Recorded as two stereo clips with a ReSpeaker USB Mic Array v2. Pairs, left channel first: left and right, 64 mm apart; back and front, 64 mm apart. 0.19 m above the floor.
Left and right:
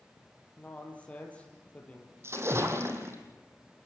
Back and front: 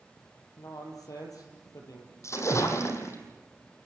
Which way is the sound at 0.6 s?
160° left.